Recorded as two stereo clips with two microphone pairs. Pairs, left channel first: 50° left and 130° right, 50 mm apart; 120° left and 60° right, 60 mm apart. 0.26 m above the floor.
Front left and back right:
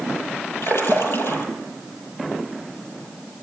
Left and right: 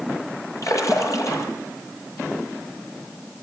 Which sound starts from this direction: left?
A splash, at 0.6 s.